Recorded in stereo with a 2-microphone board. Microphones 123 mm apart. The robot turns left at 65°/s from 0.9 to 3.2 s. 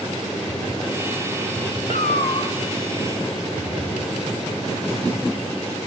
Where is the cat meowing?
90° left, 1.0 m; by 2.5 s 50° left, 1.0 m.